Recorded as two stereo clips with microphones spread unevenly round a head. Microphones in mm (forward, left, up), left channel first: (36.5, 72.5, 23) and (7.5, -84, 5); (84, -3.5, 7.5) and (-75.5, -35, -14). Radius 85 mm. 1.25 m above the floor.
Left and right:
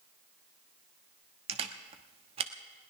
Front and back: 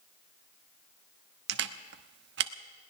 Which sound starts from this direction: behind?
A camera shutter, at 1.5 s.